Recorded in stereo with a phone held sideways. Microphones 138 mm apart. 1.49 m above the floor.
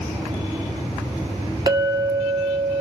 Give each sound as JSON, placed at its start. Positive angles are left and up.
{"t": 1.7, "sound": "a clink", "side_deg": -35, "distance_m": 1.3}